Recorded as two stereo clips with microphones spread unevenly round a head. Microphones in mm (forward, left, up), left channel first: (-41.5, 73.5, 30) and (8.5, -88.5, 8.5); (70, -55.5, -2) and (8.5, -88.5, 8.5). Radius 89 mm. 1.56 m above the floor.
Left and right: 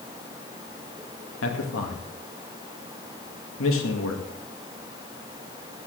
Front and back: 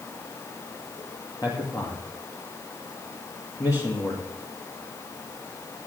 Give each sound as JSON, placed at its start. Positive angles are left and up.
{"t": 1.4, "sound": "a man speaking", "azimuth_deg": 105, "distance_m": 2.0}